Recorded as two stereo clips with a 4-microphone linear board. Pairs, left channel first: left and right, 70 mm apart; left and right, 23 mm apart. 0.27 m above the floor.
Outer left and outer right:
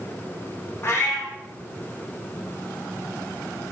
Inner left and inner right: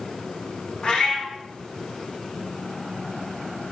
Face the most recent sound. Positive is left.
turn(degrees=40)  # may be behind; listen again after turning